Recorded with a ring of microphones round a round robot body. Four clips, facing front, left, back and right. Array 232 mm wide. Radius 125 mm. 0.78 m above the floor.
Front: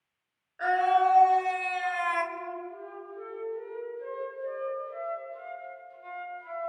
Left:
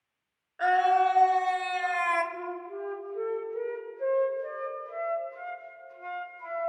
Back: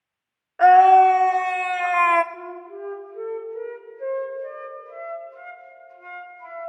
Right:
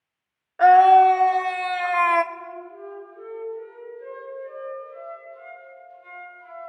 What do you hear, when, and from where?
0.6 s a scream: 145° right, 2 m; by 2.2 s 150° right, 1.1 m
2.3 s a flute: 135° left, 4 m